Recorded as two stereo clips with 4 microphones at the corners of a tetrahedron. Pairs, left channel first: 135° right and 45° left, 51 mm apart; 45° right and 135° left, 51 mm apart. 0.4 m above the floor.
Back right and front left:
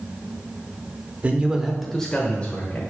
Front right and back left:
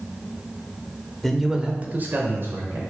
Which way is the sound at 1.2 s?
30° left.